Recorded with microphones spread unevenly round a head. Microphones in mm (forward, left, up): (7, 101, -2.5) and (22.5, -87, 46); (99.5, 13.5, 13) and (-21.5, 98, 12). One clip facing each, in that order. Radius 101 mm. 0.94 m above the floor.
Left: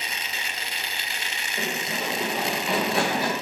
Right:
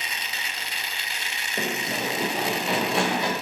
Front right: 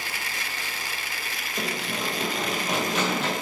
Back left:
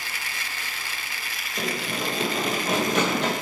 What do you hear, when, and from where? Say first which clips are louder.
1.6 s running footsteps: right 2 dB, back left 2 dB; 125° right, 1.2 m; by 3.3 s 175° right, 1.9 m